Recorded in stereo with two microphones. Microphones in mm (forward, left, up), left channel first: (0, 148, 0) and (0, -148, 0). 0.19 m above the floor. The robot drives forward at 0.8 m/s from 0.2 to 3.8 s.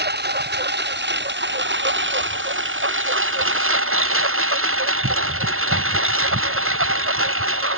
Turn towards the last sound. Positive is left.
turn(degrees=-45)  # may be behind; listen again after turning